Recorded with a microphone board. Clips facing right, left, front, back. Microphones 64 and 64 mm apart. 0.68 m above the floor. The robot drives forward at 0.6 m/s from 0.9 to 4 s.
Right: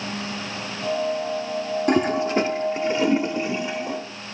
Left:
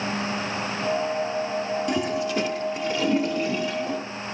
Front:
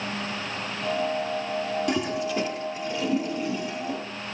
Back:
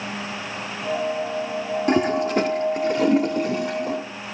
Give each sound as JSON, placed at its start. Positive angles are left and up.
{"t": 1.9, "sound": "a toilet flushing", "azimuth_deg": -130, "distance_m": 0.7}